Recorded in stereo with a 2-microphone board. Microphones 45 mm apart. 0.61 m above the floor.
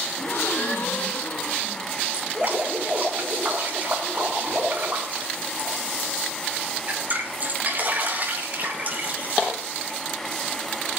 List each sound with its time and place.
0.2 s a gasp: 55° left (ahead or behind), 3.5 m
2.1 s dripping: 40° right (ahead or behind), 5 m